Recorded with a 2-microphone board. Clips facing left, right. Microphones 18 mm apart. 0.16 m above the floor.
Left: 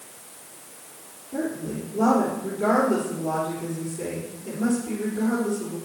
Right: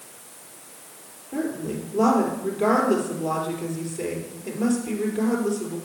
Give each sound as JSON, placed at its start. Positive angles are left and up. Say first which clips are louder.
{"t": 1.3, "sound": "a woman speaking", "louder": "right 1 dB", "side_deg": -30, "distance_m": 3.5}